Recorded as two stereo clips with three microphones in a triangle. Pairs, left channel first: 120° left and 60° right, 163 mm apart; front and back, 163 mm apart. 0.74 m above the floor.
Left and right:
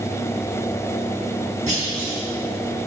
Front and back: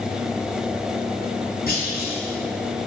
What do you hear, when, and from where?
1.7 s a clunk: 15° right, 4.5 m